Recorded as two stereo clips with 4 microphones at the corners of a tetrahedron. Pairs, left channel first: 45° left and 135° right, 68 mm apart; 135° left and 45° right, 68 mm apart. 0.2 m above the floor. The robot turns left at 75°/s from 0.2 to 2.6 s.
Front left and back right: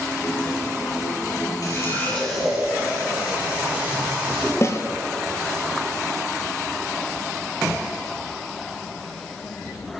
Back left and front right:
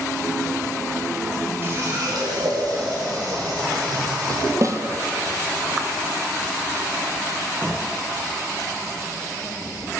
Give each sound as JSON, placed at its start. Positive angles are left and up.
{"t": 1.6, "sound": "a running tap", "azimuth_deg": 15, "distance_m": 5.0}
{"t": 4.6, "sound": "a snare drum", "azimuth_deg": -5, "distance_m": 1.7}